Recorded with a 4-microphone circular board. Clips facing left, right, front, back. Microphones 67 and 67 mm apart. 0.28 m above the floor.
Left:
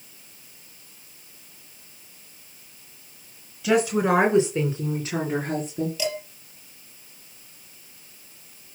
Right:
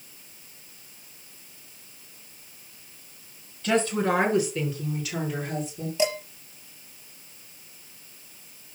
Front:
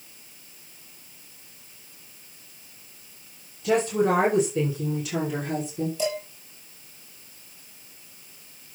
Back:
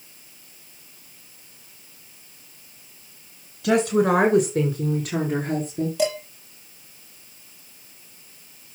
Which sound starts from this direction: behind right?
Dishes clattering, at 6.0 s.